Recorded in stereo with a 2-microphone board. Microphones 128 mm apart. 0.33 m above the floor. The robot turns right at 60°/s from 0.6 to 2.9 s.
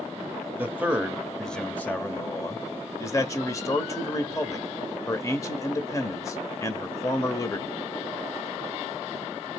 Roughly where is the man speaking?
Centre.